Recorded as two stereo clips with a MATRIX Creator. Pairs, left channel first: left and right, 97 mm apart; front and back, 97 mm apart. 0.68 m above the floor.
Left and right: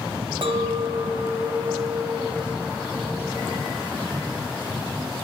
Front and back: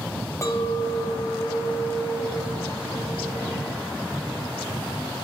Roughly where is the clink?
Ahead right.